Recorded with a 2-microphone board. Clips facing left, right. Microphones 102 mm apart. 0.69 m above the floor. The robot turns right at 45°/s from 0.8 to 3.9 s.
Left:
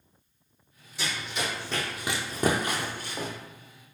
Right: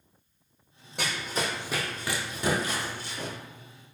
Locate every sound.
1.0 s running footsteps: 60° right (ahead or behind), 1.4 m; by 3.3 s 40° left (ahead or behind), 1.6 m